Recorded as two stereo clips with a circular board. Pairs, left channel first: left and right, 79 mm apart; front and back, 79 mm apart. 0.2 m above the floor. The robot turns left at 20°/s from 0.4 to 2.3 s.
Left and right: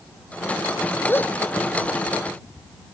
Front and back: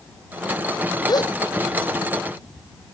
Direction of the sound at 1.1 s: 30° left.